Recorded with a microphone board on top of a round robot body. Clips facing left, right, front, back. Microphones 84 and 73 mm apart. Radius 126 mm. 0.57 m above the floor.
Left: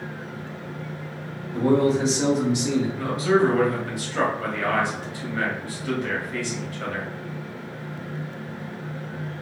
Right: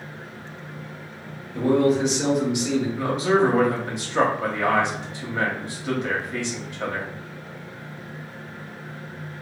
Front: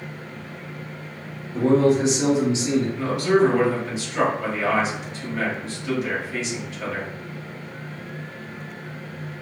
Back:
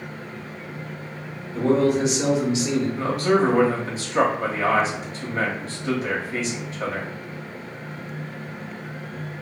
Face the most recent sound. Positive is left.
turn(degrees=-150)